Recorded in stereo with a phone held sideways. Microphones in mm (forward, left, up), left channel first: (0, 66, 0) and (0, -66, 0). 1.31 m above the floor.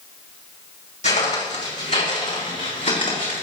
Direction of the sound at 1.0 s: 60° left (ahead or behind).